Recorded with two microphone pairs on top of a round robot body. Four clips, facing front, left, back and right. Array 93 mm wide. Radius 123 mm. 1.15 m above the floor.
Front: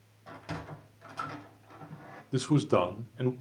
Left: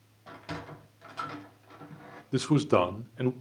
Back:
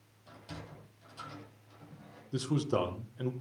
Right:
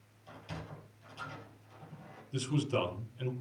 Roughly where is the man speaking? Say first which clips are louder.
Left 9 dB, front 5 dB; left.